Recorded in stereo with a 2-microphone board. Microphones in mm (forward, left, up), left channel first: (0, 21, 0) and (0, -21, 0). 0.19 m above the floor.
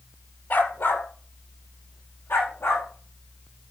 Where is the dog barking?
55° left (ahead or behind), 1.6 m; by 3.7 s 75° left (ahead or behind), 5.5 m.